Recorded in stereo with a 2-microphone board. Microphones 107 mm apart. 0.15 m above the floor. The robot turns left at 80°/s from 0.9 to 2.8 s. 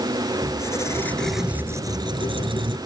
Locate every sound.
0.4 s a squeak: 35° left; by 2.8 s 115° right